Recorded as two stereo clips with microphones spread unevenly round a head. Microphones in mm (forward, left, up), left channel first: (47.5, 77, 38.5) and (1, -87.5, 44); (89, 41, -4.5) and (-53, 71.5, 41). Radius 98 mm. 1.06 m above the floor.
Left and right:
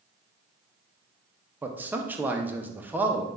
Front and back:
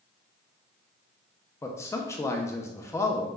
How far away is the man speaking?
About 0.6 m.